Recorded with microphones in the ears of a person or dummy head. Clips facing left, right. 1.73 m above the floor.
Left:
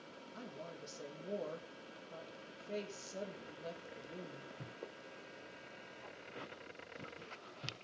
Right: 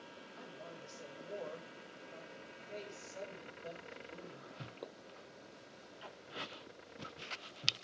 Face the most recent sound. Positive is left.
turn(degrees=55)  # may be behind; listen again after turning